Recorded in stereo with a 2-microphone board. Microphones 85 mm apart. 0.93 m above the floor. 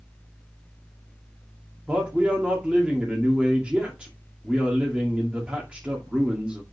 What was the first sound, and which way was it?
A man speaking, 15° right (ahead or behind).